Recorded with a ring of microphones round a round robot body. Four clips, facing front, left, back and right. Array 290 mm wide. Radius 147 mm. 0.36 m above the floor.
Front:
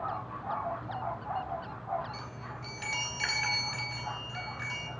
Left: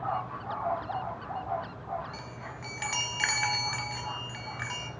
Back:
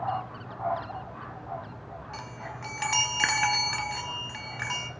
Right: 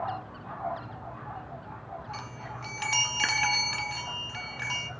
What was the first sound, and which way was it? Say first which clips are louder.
A chime: right 2 dB, back 3 dB; 165° right.